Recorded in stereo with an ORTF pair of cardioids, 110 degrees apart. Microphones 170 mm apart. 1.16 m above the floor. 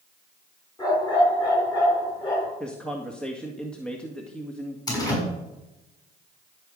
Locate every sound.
0.8 s a dog barking: 25° left, 6.5 m
2.6 s a man speaking: 5° left, 1.8 m
4.9 s a door slam: 20° left, 6.5 m